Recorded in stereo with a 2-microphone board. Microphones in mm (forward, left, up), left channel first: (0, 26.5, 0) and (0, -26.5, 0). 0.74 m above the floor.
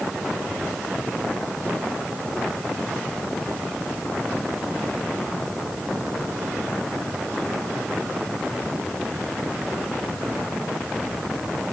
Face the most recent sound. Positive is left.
No sound to turn to.